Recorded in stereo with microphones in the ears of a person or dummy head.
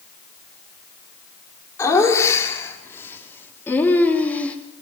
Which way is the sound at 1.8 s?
15° left (ahead or behind).